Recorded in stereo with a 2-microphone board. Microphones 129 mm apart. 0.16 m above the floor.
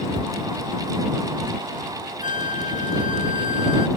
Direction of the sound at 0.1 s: 35° right (ahead or behind).